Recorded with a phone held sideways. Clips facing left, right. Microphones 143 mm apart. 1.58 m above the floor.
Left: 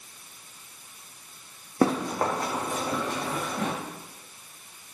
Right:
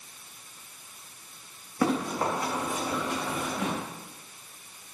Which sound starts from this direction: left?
Running footsteps, at 1.8 s.